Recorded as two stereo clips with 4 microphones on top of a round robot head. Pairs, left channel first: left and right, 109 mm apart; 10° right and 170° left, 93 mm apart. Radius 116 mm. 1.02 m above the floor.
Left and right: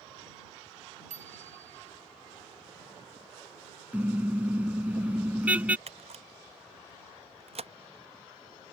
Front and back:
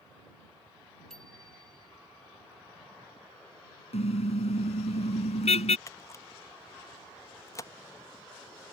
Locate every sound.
1.1 s a bicycle bell: 100° right
3.9 s a car horn: 10° right
5.9 s a camera shutter: 70° right